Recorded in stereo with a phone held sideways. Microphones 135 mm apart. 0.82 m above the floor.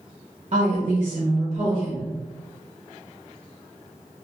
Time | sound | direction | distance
0.5 | a woman speaking | 45° right (ahead or behind) | 0.9 m